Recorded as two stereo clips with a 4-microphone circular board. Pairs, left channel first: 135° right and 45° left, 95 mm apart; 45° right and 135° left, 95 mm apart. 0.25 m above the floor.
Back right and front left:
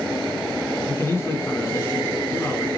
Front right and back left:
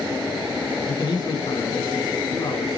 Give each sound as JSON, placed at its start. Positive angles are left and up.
{"t": 0.9, "sound": "a man speaking", "azimuth_deg": -75, "distance_m": 3.0}